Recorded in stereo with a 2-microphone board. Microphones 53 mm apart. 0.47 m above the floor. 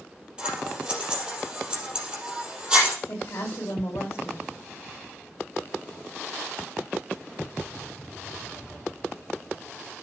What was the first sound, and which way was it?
Scissors, 20° right (ahead or behind).